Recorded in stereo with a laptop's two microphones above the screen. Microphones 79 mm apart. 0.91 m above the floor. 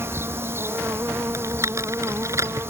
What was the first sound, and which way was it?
An insect, 30° right (ahead or behind).